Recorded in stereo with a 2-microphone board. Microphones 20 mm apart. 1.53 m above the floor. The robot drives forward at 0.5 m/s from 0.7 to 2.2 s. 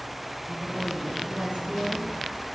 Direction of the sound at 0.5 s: 50° right (ahead or behind).